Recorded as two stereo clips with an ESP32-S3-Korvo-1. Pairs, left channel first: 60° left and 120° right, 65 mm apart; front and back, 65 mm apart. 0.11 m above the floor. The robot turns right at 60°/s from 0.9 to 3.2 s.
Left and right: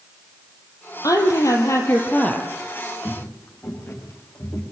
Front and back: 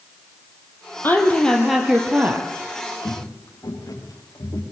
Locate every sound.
1.0 s a woman speaking: 55° left, 3.5 m; by 2.5 s 140° left, 3.5 m
3.0 s footsteps: 10° left, 5.5 m; by 4.6 s 15° left, 6 m